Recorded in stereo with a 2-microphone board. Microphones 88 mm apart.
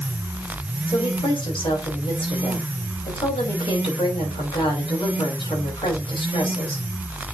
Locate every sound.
0.9 s a woman speaking: 80° left, 6 m